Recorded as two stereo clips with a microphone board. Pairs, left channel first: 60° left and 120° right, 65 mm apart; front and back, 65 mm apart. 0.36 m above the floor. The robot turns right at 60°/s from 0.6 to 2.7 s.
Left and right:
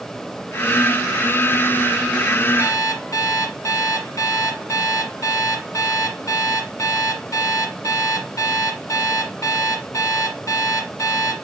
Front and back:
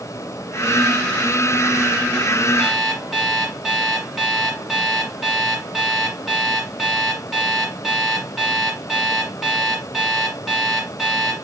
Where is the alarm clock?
85° left, 1.4 m; by 11.3 s 95° left, 1.4 m.